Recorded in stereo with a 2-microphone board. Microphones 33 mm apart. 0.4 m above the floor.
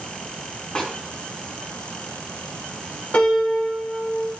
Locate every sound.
0.8 s a snare drum: 30° left (ahead or behind), 5 m
3.1 s a piano: 50° left (ahead or behind), 6 m